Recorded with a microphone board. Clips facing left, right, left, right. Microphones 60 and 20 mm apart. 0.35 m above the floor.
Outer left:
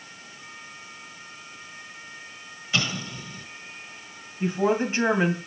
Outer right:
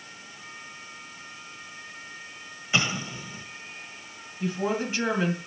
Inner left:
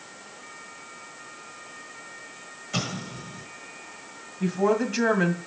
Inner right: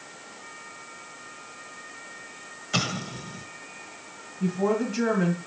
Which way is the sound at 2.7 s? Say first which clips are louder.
Outer right 1 dB, inner right 3 dB; 25° right (ahead or behind).